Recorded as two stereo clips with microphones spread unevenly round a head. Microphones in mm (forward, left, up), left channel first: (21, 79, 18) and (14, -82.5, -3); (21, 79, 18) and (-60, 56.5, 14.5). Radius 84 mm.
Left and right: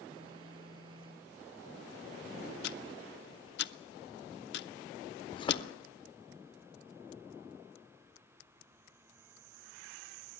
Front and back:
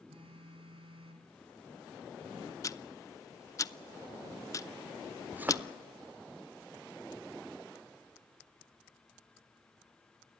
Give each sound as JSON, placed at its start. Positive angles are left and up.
{"t": 0.1, "sound": "a phone buzzing", "azimuth_deg": -155, "distance_m": 3.5}
{"t": 2.6, "sound": "ticking", "azimuth_deg": 65, "distance_m": 0.9}
{"t": 5.3, "sound": "a thud", "azimuth_deg": 130, "distance_m": 1.1}